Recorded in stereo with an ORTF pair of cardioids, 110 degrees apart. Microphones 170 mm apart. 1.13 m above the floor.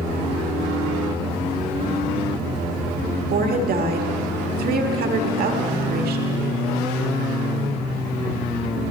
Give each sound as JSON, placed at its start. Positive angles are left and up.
{"t": 3.3, "sound": "a woman speaking", "azimuth_deg": -65, "distance_m": 1.7}